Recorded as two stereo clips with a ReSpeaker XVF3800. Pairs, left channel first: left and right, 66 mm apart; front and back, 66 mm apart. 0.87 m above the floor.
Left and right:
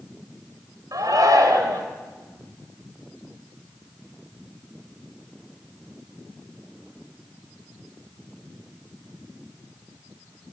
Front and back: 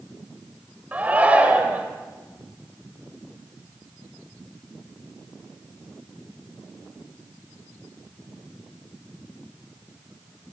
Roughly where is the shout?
Right.